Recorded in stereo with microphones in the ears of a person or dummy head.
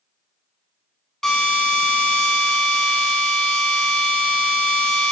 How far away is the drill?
About 4.5 m.